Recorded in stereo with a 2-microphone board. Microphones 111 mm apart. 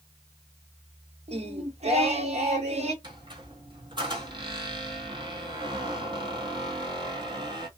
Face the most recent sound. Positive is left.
turn(degrees=-40)  # may be behind; listen again after turning